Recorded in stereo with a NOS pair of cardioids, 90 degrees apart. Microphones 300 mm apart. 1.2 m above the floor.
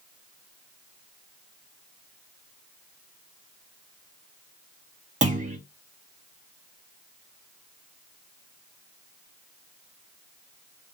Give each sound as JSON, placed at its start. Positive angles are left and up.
{"t": 5.2, "sound": "a clunk", "azimuth_deg": -25, "distance_m": 1.8}